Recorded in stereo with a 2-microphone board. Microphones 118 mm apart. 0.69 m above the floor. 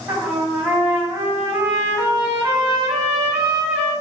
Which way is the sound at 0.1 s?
10° right (ahead or behind).